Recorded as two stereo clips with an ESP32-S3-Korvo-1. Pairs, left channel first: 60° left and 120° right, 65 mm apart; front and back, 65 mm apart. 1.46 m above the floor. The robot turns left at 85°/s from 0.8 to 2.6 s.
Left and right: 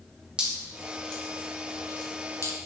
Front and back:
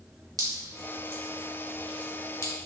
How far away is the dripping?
About 2 m.